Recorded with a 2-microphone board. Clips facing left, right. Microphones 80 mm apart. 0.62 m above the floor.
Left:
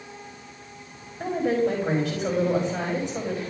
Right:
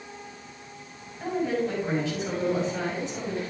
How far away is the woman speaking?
About 4 m.